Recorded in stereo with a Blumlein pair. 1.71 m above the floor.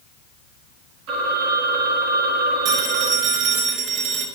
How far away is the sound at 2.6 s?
About 6.5 m.